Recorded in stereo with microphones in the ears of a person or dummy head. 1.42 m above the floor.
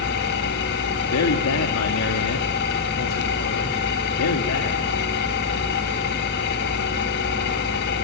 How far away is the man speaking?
About 2.5 m.